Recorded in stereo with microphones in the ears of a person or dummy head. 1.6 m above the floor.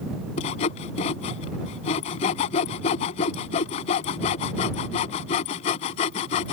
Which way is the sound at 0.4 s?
40° left (ahead or behind).